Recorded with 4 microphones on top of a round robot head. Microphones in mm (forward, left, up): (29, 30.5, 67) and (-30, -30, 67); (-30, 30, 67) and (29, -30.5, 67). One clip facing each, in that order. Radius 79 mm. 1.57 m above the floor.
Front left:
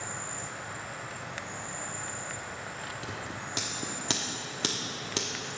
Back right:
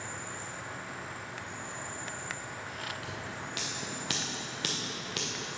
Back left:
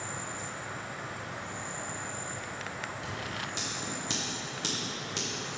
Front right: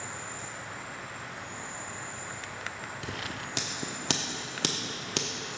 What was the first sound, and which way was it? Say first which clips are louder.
An insect: front left 2 dB, back left 1 dB; 80° left.